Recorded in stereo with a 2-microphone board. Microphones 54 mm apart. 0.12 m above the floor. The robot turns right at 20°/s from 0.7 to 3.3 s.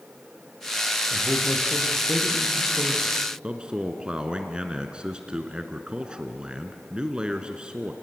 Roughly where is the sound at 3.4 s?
Centre.